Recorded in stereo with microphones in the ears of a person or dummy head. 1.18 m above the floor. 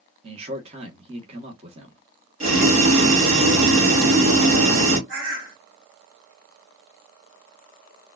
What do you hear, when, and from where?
0.2 s a man speaking: 30° right (ahead or behind), 1.2 m
2.4 s boiling: 40° right (ahead or behind), 2.5 m
5.1 s a bird: 75° right (ahead or behind), 1.6 m